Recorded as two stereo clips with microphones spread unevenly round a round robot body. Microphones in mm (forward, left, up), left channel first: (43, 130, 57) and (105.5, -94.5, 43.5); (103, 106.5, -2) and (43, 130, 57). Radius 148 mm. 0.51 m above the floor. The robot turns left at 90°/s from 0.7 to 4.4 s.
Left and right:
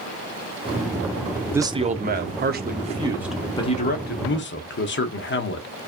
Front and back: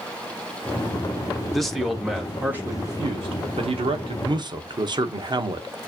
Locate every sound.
1.5 s a man speaking: straight ahead, 1.1 m; by 5.7 s 105° left, 1.1 m